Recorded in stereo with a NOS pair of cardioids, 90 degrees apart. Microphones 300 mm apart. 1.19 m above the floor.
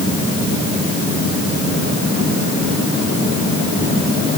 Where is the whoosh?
I don't hear a whoosh.